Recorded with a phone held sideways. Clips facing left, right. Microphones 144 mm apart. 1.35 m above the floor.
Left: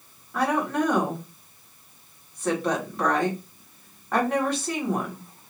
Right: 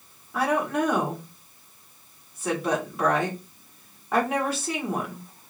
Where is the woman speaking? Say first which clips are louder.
Even; 5° right (ahead or behind), 1.4 m.